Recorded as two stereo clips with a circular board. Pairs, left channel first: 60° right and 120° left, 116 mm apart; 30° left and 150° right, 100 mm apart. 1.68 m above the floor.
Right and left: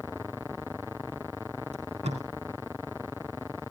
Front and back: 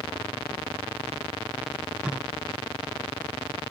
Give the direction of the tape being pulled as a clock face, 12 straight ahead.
8 o'clock.